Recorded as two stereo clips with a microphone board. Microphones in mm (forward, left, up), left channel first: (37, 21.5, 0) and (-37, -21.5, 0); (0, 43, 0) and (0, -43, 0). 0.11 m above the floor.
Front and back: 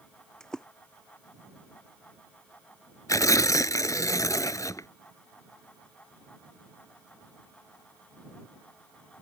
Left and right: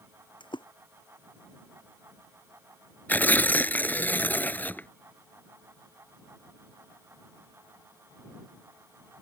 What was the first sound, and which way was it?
A splash, 115° left.